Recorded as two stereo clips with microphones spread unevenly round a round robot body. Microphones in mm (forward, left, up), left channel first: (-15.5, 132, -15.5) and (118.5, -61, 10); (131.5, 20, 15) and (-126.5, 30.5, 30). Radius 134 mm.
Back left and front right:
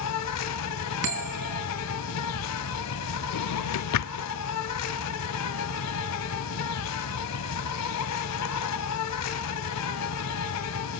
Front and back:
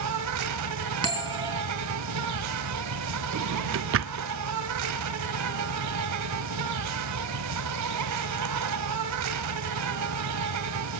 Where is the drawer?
140° left, 0.6 m.